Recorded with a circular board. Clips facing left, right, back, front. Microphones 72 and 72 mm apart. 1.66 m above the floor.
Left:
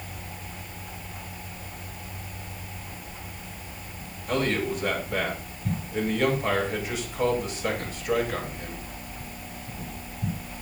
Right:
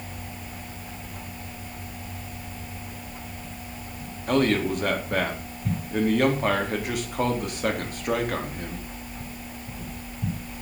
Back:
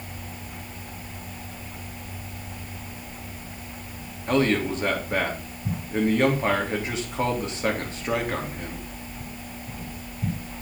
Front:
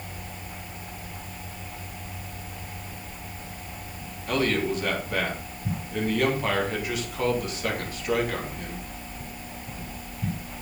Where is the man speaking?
120° right, 3.5 m.